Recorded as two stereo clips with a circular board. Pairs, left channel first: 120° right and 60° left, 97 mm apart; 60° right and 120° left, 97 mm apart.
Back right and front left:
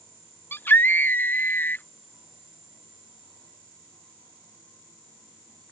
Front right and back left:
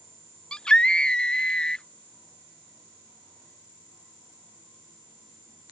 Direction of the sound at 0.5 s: 125° right.